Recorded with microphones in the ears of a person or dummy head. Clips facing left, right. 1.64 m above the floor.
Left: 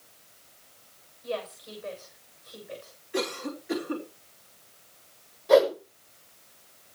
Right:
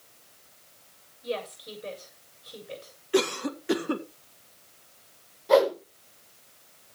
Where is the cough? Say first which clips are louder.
Right 6 dB; 75° right (ahead or behind), 1.8 m.